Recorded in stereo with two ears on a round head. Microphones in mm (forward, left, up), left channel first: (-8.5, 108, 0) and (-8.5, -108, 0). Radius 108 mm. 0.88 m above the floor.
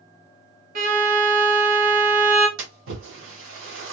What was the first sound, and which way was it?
A violin, 35° right (ahead or behind).